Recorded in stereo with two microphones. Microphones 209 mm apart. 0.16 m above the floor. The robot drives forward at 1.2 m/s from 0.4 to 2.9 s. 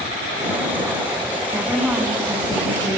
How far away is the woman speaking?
About 1.2 m.